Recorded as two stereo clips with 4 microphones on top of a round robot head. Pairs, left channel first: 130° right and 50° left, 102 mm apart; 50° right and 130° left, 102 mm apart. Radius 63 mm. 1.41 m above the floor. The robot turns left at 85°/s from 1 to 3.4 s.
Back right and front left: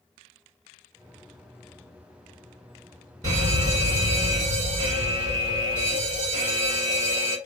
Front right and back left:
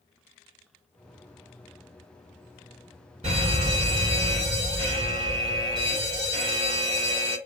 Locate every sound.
3.2 s a fire alarm: 100° left, 3.5 m; by 7.4 s 90° left, 3.5 m